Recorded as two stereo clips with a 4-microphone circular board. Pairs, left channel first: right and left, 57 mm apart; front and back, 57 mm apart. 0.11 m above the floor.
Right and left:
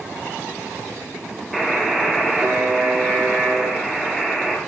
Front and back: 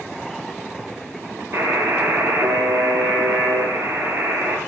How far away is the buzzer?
About 0.6 m.